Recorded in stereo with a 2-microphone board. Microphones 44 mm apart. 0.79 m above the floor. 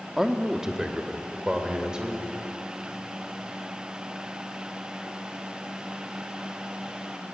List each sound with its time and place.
0.2 s a man speaking: 5° right (ahead or behind), 1.5 m; by 2.2 s 15° right (ahead or behind), 3.5 m